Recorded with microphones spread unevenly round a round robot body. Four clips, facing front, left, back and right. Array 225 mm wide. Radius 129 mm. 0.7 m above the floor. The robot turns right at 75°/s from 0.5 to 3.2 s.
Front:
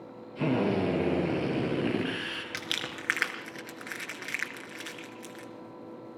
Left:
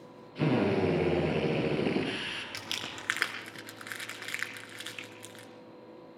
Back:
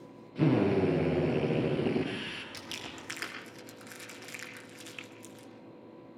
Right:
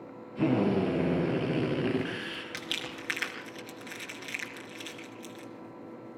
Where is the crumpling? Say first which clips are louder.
Right 3 dB, front 6 dB; 5° right, 4 m; by 5.5 s 40° left, 4 m.